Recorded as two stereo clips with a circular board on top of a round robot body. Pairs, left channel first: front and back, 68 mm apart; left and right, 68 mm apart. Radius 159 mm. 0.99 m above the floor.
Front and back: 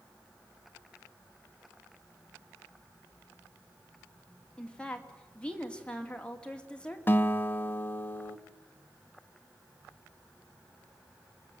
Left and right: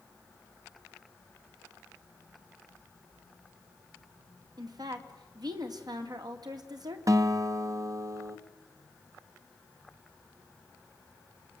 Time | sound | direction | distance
4.6 | a woman speaking | 75° right | 2.5 m
7.1 | a guitar | 60° right | 1.3 m